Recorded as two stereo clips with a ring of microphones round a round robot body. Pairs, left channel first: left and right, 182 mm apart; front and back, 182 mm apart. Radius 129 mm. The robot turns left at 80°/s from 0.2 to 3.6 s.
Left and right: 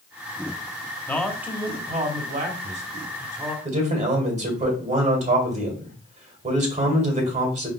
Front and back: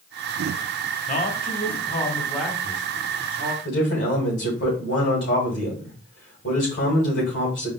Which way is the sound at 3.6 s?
40° right.